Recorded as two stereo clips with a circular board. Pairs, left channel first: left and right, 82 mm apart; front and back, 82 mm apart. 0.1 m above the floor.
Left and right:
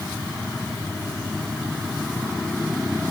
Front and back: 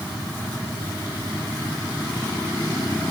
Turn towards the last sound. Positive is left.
No sound to turn to.